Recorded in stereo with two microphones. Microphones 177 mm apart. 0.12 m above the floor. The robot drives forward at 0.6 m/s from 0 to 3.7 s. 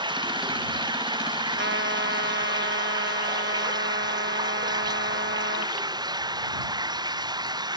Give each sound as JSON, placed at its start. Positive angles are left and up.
{"t": 0.0, "sound": "running water", "side_deg": -25}
{"t": 1.6, "sound": "a trumpet", "side_deg": -80}